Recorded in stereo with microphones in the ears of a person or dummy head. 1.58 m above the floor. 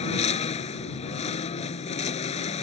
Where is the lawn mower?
30° left (ahead or behind).